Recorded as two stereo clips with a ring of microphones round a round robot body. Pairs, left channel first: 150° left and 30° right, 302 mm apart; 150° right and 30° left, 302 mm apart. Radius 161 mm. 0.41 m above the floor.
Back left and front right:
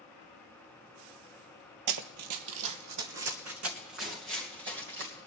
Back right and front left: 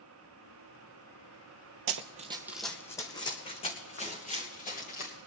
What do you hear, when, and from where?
1.9 s running footsteps: 5° right, 0.7 m; by 5.3 s 85° right, 4 m